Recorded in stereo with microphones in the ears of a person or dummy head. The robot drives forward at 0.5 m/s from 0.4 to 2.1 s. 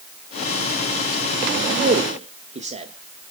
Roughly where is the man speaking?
Right.